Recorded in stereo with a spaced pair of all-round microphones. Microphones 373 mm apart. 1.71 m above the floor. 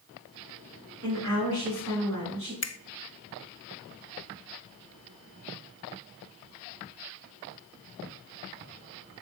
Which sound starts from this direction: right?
A woman speaking, at 1.0 s.